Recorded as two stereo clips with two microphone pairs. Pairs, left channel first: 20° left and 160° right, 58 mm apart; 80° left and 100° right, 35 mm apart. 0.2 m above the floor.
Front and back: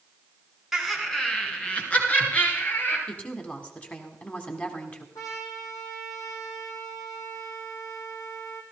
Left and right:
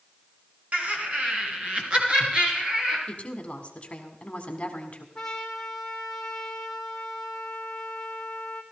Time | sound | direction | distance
0.7 | laughter | 75° right | 2 m
3.1 | a woman speaking | 65° left | 1.5 m
5.2 | a trumpet | 10° left | 2.5 m